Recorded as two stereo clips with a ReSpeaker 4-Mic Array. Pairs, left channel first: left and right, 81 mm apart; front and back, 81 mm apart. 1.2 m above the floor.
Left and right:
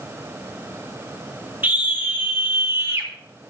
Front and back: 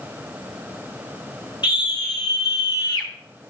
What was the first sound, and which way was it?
A scream, 20° right.